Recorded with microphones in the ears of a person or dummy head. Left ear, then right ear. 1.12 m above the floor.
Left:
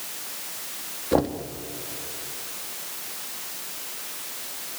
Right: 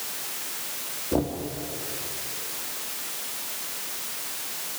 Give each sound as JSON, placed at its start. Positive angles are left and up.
{"t": 1.1, "sound": "knocking", "side_deg": 70, "distance_m": 1.3}